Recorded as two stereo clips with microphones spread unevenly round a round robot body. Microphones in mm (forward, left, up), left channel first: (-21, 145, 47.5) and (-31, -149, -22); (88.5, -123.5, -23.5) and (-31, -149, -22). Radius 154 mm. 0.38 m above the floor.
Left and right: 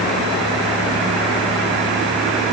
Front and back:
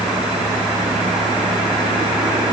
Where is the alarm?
No alarm in this recording.